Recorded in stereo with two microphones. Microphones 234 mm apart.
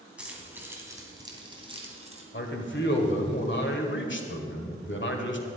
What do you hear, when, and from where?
0.2 s keys jangling: 5° right (ahead or behind), 2.5 m; by 2.2 s 30° right (ahead or behind), 2 m
2.3 s a man speaking: 50° left (ahead or behind), 1.8 m